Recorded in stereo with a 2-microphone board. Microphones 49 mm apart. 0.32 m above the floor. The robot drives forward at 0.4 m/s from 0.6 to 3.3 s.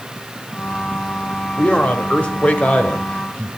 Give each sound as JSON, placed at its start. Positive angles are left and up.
{"t": 1.6, "sound": "a man speaking", "side_deg": 30, "distance_m": 1.4}